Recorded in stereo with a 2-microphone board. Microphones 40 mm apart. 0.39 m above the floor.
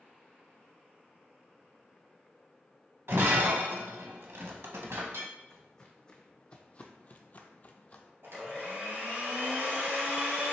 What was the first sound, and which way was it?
Breaking glass, 85° right.